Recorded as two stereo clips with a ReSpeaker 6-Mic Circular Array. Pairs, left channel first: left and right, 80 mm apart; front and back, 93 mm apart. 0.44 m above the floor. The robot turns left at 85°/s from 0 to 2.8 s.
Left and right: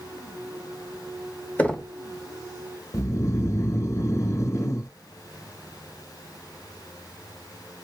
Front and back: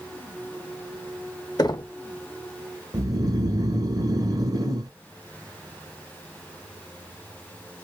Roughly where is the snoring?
Behind left.